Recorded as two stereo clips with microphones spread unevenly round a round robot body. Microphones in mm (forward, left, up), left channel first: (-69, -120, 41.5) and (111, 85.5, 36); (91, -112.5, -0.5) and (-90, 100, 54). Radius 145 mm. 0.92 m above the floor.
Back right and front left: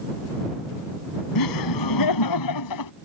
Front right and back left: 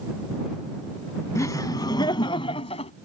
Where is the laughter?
130° right; by 2.9 s 120° right.